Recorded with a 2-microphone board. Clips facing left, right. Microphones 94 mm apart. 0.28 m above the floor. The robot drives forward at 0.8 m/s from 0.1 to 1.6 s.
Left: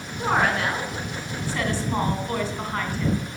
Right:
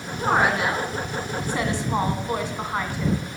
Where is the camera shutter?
No camera shutter in this recording.